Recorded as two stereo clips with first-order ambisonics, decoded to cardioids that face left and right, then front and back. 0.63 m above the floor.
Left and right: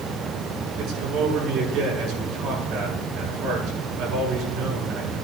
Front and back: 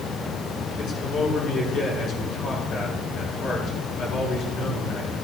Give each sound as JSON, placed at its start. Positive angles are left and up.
{"t": 0.8, "sound": "a man speaking", "azimuth_deg": -55, "distance_m": 6.5}